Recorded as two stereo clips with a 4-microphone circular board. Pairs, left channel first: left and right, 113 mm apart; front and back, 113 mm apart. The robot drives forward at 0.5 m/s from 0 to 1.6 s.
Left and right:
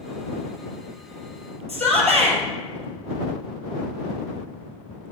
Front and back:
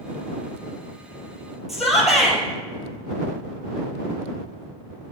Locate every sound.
1.7 s a shout: 95° right, 2.5 m